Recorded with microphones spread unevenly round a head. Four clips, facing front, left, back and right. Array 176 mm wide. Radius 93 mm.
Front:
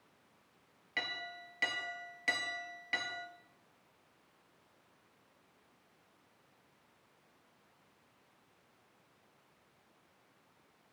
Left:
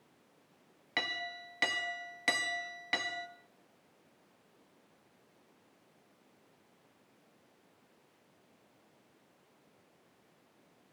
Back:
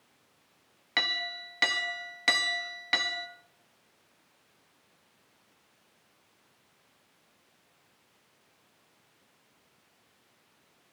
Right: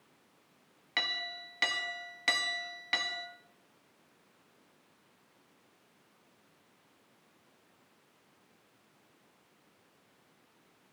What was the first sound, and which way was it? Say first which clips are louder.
A clink: even, back 7 dB; 130° right.